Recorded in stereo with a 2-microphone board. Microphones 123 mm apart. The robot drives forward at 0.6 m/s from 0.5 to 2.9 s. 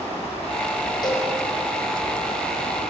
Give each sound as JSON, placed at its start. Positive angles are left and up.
{"t": 1.0, "sound": "a cowbell", "side_deg": 35, "distance_m": 6.0}